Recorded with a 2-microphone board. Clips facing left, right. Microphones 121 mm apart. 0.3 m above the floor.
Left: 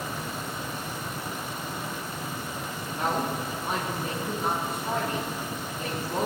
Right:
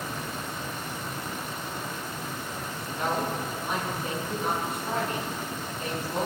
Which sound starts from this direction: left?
A woman speaking, at 3.0 s.